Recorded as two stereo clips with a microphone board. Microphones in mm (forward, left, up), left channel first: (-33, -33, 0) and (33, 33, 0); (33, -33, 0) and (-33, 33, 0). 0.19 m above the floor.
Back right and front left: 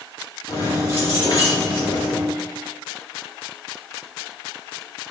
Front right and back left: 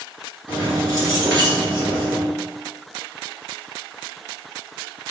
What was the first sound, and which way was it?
Keys jangling, 170° right.